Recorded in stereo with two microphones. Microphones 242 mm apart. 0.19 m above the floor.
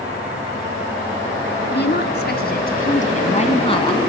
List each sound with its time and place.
1.7 s a woman speaking: 50° left (ahead or behind), 2.5 m; by 4.0 s 20° left (ahead or behind), 2 m